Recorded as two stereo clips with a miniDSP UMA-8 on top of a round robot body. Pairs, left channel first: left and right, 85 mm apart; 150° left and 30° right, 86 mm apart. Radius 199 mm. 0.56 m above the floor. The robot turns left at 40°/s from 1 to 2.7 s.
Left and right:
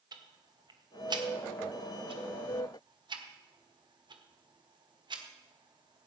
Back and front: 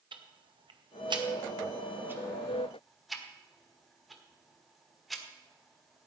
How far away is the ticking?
About 1.6 m.